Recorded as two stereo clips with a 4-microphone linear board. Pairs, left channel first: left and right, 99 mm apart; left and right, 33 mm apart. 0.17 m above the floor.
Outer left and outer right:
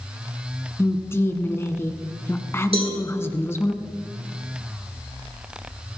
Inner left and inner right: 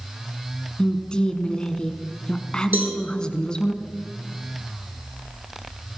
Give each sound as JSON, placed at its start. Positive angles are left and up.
{"t": 0.8, "sound": "a woman speaking", "side_deg": 25, "distance_m": 1.3}
{"t": 2.7, "sound": "a cowbell", "side_deg": -80, "distance_m": 5.0}